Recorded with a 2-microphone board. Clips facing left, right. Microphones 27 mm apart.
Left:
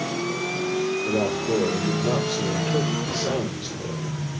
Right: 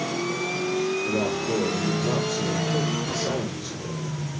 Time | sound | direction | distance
1.1 | a man speaking | 55° left (ahead or behind) | 2.5 m